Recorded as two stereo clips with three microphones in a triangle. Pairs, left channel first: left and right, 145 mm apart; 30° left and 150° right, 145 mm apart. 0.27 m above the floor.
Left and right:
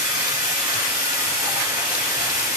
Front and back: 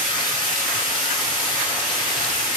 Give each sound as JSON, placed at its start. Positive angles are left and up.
{"t": 0.0, "sound": "running water", "azimuth_deg": -25, "distance_m": 1.7}